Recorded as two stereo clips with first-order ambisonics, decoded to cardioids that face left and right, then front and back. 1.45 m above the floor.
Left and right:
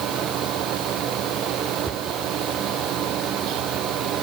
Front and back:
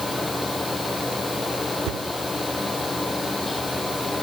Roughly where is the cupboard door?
Behind.